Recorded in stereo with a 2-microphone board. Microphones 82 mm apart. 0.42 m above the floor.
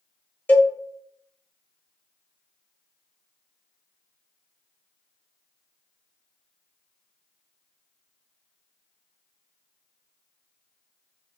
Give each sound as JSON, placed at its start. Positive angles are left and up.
{"t": 0.5, "sound": "a cowbell", "side_deg": 25, "distance_m": 0.8}